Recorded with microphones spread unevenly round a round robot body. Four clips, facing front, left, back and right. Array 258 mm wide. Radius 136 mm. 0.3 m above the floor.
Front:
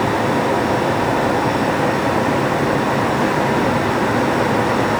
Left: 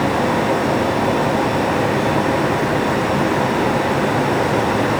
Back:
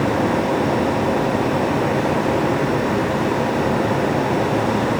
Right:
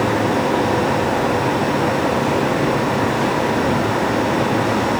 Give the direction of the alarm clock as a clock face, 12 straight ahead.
I don't hear an alarm clock.